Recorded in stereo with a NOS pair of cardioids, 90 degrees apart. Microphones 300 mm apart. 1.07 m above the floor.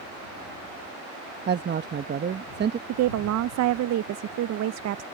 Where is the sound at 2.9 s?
60° right.